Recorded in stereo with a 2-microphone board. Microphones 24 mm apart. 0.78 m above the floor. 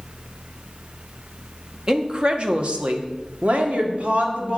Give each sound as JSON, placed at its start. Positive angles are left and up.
{"t": 1.9, "sound": "a woman speaking", "side_deg": -25, "distance_m": 1.1}